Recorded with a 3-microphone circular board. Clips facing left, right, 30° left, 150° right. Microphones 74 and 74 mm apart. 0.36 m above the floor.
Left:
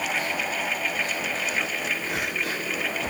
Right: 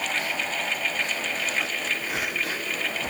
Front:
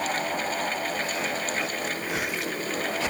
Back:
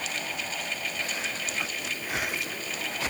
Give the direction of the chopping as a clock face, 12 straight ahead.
I don't hear chopping.